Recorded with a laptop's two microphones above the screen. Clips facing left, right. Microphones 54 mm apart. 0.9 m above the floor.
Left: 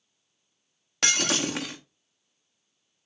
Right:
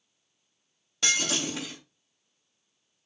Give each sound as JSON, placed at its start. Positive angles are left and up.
{"t": 1.0, "sound": "breaking glass", "side_deg": 65, "distance_m": 0.7}